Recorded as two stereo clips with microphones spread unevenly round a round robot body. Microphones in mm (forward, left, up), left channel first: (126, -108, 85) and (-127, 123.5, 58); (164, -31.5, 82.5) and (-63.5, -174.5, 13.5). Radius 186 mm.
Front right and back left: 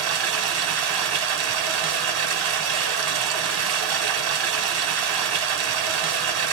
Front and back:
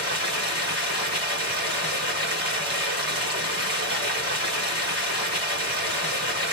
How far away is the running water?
About 1.9 m.